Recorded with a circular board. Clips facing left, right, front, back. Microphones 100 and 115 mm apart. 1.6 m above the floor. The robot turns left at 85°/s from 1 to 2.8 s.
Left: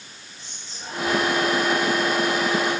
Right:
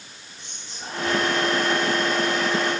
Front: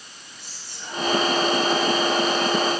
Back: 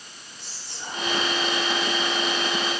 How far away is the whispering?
About 5 m.